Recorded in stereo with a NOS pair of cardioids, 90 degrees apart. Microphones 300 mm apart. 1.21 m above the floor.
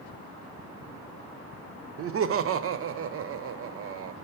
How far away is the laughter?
About 0.6 m.